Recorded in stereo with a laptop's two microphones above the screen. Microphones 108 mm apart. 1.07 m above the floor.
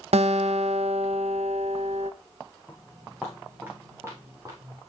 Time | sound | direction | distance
0.1 | a guitar | 75° right (ahead or behind) | 0.5 m
2.7 | footsteps | 5° left (ahead or behind) | 3.5 m